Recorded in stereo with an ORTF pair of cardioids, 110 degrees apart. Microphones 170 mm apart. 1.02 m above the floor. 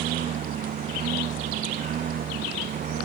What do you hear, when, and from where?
0.0 s a lawn mower: 55° right